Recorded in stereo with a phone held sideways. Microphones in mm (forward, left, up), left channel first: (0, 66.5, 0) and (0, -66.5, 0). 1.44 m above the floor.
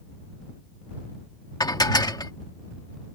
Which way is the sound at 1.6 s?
30° left (ahead or behind).